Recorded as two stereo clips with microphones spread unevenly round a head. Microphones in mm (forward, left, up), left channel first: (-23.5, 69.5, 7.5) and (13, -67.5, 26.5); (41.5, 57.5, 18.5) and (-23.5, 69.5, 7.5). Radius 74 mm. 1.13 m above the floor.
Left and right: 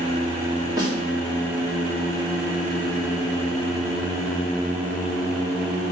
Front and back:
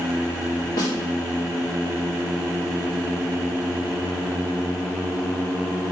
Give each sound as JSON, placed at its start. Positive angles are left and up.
{"t": 0.8, "sound": "a snare drum", "azimuth_deg": -10, "distance_m": 2.5}